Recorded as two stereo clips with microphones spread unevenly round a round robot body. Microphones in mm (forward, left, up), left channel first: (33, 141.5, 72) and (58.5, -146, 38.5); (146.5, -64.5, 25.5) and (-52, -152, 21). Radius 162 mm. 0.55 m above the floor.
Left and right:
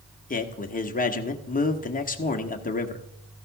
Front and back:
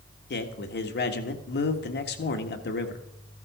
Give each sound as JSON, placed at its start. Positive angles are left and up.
{"t": 0.3, "sound": "a man speaking", "azimuth_deg": 35, "distance_m": 1.4}